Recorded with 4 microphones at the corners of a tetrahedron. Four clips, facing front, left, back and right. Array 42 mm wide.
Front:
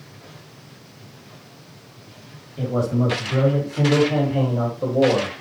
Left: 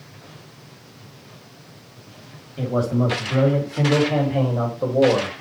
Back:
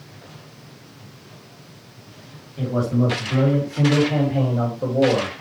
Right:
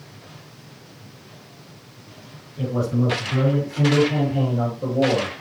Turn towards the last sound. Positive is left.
turn(degrees=85)